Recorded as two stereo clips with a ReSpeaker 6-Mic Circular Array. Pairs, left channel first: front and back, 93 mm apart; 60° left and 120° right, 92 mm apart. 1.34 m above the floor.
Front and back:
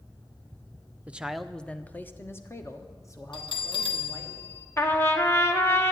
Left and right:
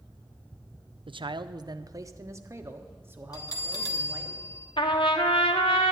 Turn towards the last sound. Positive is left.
turn(degrees=60)